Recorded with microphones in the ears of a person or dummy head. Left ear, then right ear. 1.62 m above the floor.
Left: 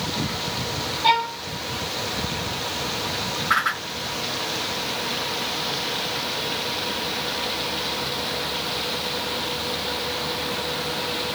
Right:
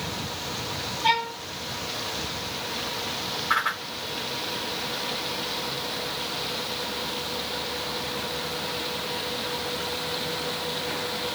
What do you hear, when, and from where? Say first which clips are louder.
1.0 s a violin: left 4 dB; 5° left (ahead or behind), 1.4 m
3.5 s a whoosh: left 3 dB; 5° right (ahead or behind), 1.4 m